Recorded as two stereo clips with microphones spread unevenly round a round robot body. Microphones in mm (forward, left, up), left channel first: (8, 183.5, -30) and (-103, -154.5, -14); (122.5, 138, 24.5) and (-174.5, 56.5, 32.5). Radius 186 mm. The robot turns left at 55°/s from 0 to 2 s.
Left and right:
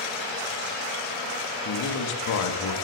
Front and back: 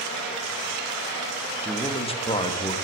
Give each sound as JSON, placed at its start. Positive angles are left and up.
{"t": 1.6, "sound": "a man speaking", "azimuth_deg": 100, "distance_m": 1.4}